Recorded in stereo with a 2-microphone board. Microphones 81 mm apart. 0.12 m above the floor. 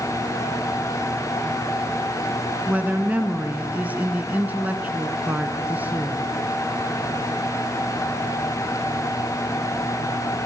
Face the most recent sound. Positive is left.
turn(degrees=-20)  # may be behind; listen again after turning